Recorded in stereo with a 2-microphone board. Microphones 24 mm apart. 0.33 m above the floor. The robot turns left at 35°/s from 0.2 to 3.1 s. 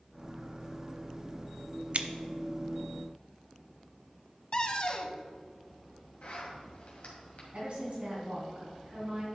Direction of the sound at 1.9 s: 60° right (ahead or behind).